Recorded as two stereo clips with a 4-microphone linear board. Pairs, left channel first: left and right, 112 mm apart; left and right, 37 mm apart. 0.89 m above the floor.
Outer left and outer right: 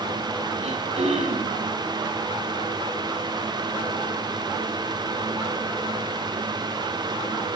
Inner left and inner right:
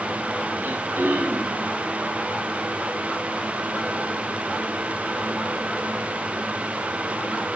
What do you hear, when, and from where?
0.6 s throat clearing: 80° right, 7 m